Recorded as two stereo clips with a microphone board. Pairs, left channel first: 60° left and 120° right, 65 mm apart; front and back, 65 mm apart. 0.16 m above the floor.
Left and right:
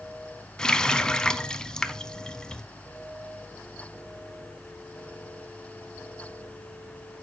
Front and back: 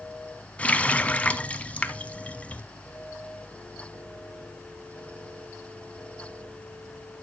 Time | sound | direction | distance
0.6 | a running tap | 5° left | 0.7 m